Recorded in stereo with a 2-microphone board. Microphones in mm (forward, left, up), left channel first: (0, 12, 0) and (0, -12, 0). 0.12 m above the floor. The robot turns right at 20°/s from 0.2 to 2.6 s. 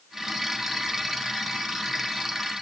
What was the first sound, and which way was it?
Only background noise.